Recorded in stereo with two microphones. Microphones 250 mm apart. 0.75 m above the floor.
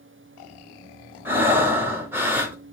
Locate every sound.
1.2 s breathing: 10° right (ahead or behind), 2.0 m